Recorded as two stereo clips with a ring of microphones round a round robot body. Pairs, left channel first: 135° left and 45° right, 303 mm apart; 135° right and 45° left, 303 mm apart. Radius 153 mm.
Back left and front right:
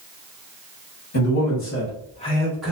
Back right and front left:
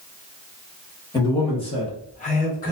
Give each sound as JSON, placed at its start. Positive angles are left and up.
{"t": 1.1, "sound": "a man speaking", "azimuth_deg": 150, "distance_m": 1.3}